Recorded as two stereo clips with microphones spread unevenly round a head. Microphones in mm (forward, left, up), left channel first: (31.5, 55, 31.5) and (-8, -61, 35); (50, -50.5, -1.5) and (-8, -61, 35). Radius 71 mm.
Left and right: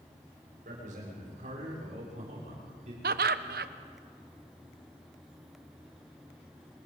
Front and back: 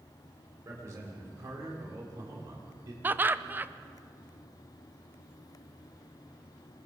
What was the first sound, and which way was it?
A man speaking, 140° right.